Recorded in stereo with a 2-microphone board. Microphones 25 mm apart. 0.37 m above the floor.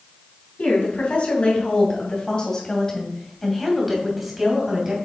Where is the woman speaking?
60° left (ahead or behind), 3 m; by 5.0 s 20° right (ahead or behind), 2.5 m.